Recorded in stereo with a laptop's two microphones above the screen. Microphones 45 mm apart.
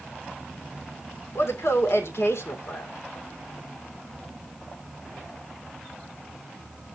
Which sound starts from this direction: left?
A woman speaking, at 1.4 s.